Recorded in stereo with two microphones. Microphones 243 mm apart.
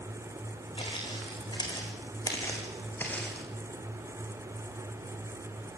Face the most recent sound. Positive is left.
turn(degrees=5)  # may be behind; listen again after turning